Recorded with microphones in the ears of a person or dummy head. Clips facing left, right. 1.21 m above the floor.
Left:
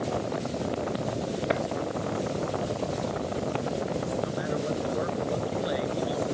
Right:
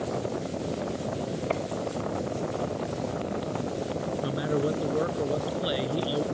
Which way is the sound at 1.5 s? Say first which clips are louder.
Left 2 dB; 20° left (ahead or behind).